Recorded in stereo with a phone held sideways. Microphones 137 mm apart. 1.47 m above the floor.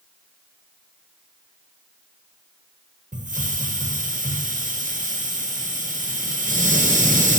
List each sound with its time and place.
3.1 s a hiss: 70° right (ahead or behind), 1.1 m